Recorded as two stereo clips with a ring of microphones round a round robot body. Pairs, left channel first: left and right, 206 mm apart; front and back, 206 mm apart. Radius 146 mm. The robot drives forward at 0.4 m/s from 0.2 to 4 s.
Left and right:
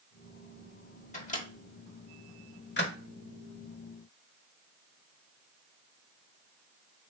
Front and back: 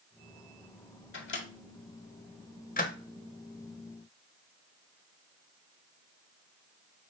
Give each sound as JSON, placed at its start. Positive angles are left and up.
{"t": 1.1, "sound": "a microwave", "azimuth_deg": 30, "distance_m": 1.5}